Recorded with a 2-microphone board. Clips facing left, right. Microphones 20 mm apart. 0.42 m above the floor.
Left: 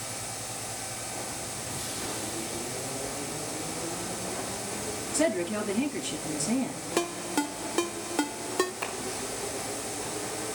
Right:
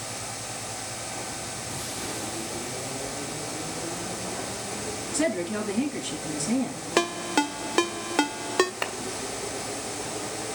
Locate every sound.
5.1 s a woman speaking: 5° right (ahead or behind), 5 m
7.0 s a ringtone: 35° right (ahead or behind), 0.5 m
8.8 s a clap: 45° right (ahead or behind), 2 m